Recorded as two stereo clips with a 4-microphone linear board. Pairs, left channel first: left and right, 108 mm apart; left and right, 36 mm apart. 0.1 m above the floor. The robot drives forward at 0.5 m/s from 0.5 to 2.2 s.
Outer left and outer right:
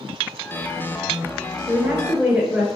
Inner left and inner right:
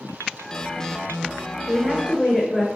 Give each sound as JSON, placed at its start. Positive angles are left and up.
{"t": 1.7, "sound": "a woman speaking", "side_deg": -15, "distance_m": 1.4}